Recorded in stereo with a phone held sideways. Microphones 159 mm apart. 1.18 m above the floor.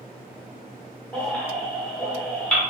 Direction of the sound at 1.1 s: 5° left (ahead or behind).